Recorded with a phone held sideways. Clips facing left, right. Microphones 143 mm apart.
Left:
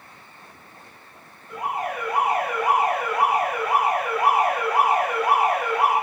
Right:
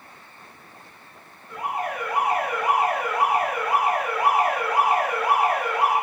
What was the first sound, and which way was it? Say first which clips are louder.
An alarm: left 1 dB; 10° left (ahead or behind).